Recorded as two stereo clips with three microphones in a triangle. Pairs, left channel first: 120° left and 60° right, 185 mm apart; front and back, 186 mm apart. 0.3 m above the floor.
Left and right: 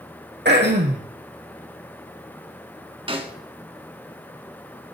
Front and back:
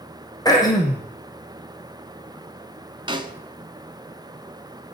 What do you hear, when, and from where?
0.5 s throat clearing: 70° right, 2.5 m
3.1 s a snare drum: 115° right, 1.2 m